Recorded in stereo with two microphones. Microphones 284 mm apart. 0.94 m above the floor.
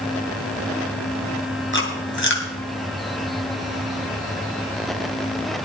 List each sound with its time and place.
1.7 s chewing: 40° left (ahead or behind), 2.5 m